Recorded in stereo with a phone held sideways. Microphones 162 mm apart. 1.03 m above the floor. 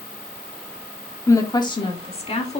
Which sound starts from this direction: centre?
A woman speaking, at 1.3 s.